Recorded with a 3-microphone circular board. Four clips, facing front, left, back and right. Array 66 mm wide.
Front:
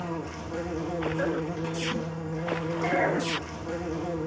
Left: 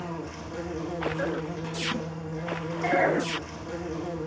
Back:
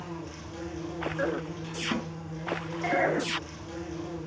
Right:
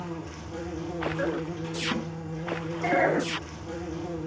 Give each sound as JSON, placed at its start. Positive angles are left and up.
{"t": 0.0, "sound": "an insect", "azimuth_deg": 25, "distance_m": 3.5}
{"t": 1.9, "sound": "a snare drum", "azimuth_deg": -155, "distance_m": 2.5}